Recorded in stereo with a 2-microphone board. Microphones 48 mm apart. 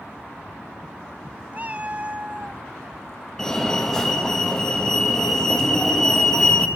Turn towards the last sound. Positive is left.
turn(degrees=10)  # may be behind; listen again after turning